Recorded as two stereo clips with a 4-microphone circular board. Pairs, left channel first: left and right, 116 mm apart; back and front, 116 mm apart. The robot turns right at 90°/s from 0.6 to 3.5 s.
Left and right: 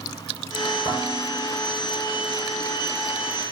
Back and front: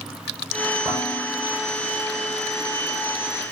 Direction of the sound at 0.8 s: 55° left.